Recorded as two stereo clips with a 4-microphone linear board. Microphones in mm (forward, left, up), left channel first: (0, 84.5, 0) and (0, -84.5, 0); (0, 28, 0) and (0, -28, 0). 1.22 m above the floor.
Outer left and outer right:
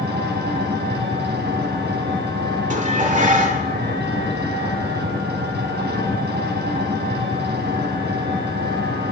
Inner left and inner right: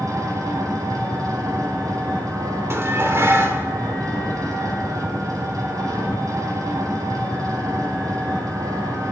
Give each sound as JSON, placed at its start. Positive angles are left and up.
{"t": 0.0, "sound": "an engine running", "side_deg": -70, "distance_m": 5.5}
{"t": 2.7, "sound": "dishes clattering", "side_deg": -45, "distance_m": 2.0}